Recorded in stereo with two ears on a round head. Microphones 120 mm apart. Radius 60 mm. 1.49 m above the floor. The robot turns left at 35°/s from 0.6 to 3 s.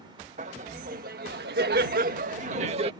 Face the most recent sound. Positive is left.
turn(degrees=-140)